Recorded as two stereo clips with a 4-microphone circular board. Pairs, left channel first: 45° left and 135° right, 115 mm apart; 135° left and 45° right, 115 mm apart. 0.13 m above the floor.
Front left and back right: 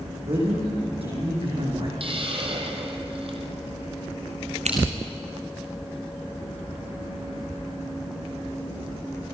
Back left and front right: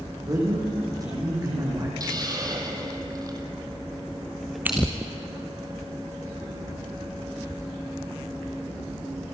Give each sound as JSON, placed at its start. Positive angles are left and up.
{"t": 0.3, "sound": "a man speaking", "azimuth_deg": -100, "distance_m": 8.0}
{"t": 2.0, "sound": "a hiss", "azimuth_deg": -100, "distance_m": 3.5}
{"t": 4.7, "sound": "scissors", "azimuth_deg": -120, "distance_m": 3.0}